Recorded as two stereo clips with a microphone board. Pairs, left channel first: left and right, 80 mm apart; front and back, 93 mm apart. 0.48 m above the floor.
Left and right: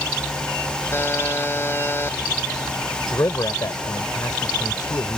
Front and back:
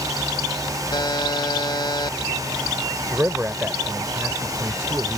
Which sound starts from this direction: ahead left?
A buzzer, at 0.9 s.